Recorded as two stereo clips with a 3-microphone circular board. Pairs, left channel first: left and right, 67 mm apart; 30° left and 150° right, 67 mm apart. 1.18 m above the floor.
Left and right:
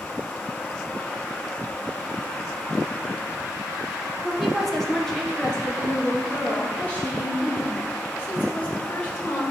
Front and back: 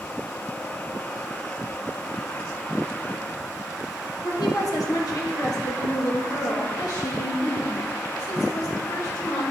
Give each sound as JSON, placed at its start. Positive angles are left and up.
{"t": 4.2, "sound": "a woman speaking", "azimuth_deg": -5, "distance_m": 1.2}